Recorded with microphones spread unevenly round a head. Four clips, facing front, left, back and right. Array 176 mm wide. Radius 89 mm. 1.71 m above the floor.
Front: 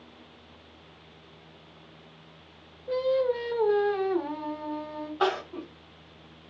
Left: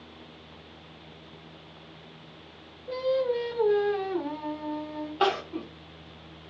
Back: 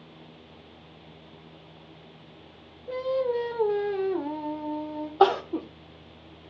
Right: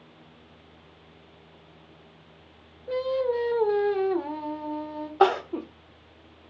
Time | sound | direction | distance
2.9 | singing | 75° right | 1.5 m
5.2 | crying | 135° right | 0.8 m